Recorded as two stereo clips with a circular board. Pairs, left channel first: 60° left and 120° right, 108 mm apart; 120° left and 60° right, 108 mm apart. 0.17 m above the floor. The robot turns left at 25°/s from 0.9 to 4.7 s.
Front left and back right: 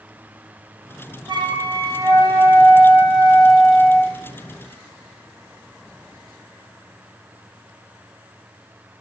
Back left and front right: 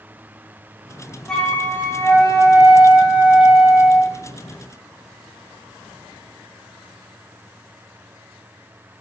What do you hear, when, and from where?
1.3 s a flute: 155° right, 1.5 m; by 4.1 s 135° left, 1.5 m